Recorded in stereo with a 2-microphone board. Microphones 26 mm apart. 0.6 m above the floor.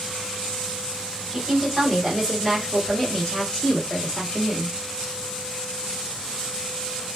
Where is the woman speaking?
5° right (ahead or behind), 1.5 m; by 4.7 s 45° left (ahead or behind), 1.3 m.